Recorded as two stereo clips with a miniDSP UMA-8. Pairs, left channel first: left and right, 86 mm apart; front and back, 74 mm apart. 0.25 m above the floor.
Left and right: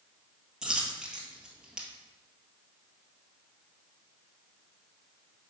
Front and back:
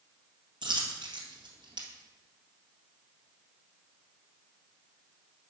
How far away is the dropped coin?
About 1.6 m.